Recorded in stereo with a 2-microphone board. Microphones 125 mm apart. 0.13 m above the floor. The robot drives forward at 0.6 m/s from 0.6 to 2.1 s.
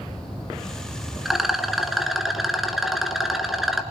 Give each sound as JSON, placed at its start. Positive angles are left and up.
{"t": 1.2, "sound": "a rattle", "side_deg": 0, "distance_m": 1.6}